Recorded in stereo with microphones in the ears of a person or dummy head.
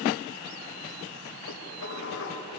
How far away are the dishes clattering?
About 4.5 m.